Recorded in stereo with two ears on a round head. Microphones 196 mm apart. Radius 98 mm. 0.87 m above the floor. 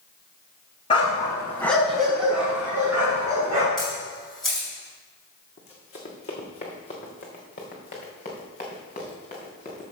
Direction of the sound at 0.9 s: 25° left (ahead or behind).